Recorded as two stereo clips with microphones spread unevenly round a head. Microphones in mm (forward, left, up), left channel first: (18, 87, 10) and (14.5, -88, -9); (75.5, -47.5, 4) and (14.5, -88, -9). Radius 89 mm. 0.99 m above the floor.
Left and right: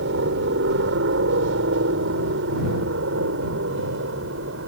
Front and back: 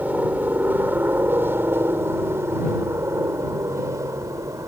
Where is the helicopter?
80° right; by 4.7 s 105° right.